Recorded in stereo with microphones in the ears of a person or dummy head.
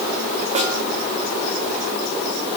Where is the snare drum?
30° right (ahead or behind), 5 m.